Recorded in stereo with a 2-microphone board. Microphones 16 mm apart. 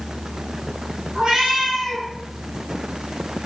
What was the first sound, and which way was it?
A cat meowing, 65° right (ahead or behind).